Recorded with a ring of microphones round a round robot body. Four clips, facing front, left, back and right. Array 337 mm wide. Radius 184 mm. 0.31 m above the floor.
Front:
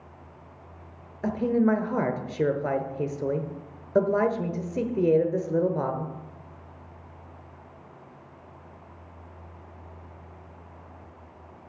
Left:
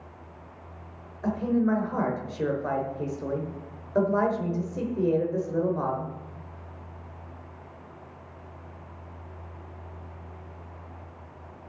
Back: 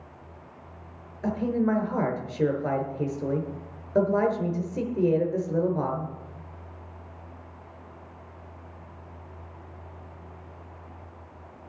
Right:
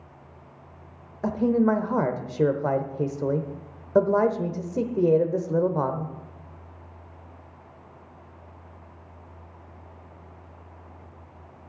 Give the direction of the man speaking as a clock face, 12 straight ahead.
2 o'clock.